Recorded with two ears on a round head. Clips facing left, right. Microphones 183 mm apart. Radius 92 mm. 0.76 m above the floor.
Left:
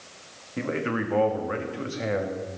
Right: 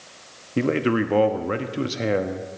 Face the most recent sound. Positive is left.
turn(degrees=-50)  # may be behind; listen again after turning